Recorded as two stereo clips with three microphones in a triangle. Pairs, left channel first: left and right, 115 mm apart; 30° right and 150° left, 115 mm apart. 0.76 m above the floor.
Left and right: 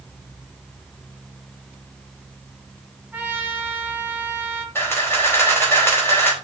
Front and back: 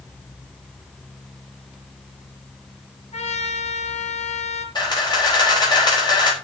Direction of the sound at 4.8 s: 20° left.